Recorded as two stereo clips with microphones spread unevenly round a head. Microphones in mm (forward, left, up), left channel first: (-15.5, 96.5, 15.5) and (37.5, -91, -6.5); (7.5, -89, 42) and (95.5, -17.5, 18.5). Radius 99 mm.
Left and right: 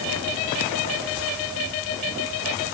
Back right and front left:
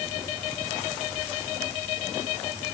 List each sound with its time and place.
Only background noise.